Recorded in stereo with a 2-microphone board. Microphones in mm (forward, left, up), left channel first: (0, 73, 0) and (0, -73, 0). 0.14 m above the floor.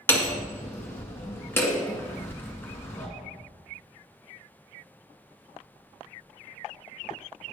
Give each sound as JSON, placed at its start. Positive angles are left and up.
{"t": 0.1, "sound": "hammering", "side_deg": 15, "distance_m": 1.7}